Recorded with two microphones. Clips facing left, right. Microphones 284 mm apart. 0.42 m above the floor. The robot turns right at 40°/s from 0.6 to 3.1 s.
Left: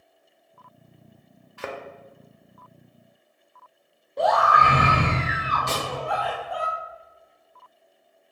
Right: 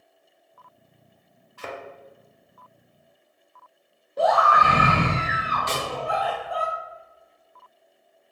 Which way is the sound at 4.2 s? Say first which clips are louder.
Right 1 dB; 5° right (ahead or behind).